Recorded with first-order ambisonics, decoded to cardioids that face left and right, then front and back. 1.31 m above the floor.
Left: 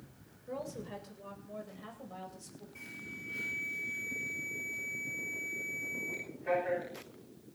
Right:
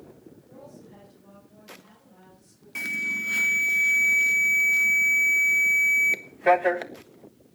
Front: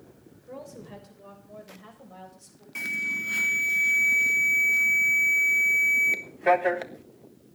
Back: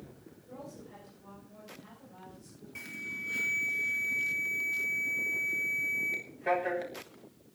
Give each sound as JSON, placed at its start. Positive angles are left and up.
{"t": 0.5, "sound": "a woman speaking", "azimuth_deg": 55, "distance_m": 6.5}
{"t": 2.8, "sound": "an alarm", "azimuth_deg": -60, "distance_m": 1.2}